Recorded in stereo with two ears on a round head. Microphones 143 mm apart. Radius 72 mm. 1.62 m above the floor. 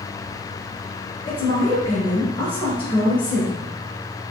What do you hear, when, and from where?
1.2 s a woman speaking: 30° left (ahead or behind), 1.2 m